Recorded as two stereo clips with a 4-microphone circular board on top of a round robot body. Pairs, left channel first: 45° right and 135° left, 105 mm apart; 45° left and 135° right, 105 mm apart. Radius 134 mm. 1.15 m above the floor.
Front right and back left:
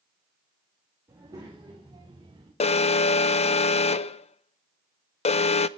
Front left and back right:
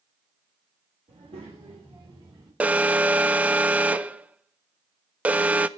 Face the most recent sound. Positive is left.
turn(degrees=-60)